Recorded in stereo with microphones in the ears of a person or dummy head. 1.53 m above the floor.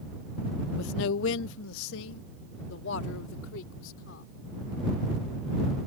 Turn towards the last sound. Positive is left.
turn(degrees=80)